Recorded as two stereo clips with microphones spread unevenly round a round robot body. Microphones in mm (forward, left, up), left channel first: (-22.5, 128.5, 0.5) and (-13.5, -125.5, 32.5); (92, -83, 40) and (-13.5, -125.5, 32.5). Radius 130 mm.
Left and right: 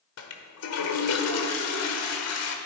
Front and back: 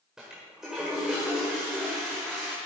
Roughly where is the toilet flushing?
Behind left.